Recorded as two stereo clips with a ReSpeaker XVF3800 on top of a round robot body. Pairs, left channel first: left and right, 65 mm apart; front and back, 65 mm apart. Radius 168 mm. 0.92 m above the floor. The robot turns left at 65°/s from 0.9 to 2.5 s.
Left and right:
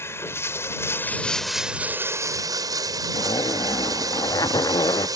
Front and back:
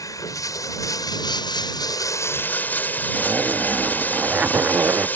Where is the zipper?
110° left.